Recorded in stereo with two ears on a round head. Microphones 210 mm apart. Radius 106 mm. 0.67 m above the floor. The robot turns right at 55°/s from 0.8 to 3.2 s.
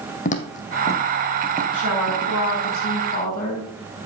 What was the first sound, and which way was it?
Footsteps, 35° left (ahead or behind).